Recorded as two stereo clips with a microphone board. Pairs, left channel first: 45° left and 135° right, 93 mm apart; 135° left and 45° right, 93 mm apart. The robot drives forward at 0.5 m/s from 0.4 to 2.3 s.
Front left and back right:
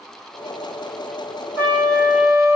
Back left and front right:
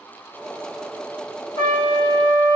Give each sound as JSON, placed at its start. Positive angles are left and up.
{"t": 1.6, "sound": "a trumpet", "azimuth_deg": 165, "distance_m": 1.3}